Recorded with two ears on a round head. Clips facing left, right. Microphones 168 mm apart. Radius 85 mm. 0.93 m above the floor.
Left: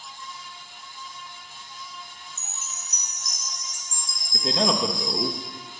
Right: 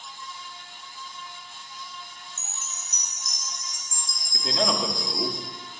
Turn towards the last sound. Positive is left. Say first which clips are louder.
# left 2 dB
turn(degrees=30)  # may be behind; listen again after turning